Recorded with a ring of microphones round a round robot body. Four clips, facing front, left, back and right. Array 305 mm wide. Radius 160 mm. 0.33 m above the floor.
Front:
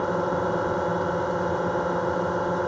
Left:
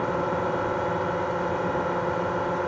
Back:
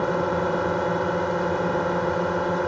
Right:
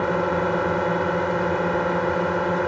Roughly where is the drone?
Right.